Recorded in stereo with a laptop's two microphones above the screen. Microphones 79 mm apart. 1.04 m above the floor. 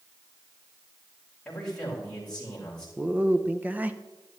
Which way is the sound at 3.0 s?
20° right (ahead or behind).